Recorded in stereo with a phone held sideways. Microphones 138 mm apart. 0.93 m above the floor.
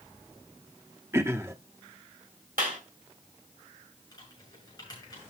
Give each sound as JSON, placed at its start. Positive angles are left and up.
{"t": 1.1, "sound": "throat clearing", "side_deg": -20, "distance_m": 0.9}
{"t": 2.6, "sound": "a clap", "side_deg": -85, "distance_m": 3.5}
{"t": 4.1, "sound": "typing on a keyboard", "side_deg": 30, "distance_m": 7.0}